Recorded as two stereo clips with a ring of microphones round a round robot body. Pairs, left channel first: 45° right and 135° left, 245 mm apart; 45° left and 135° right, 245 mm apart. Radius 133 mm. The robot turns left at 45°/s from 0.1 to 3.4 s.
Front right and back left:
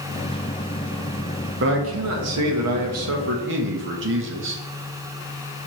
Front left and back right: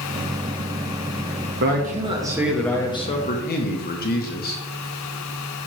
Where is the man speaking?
Straight behind, 1.2 m; by 4.6 s 95° left, 1.2 m.